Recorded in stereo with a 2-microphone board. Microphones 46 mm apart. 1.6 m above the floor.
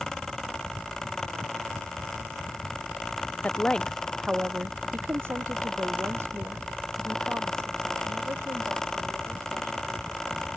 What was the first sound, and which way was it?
A woman speaking, 30° left (ahead or behind).